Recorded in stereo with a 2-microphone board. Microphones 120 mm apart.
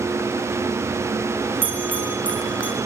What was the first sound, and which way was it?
A bell, 15° left (ahead or behind).